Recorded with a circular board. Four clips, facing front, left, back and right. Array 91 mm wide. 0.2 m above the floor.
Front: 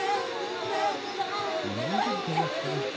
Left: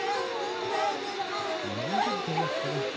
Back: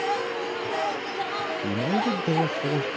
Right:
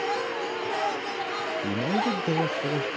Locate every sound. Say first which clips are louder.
1.6 s a man speaking: right 4 dB, back 7 dB; 130° right; by 2.9 s 150° right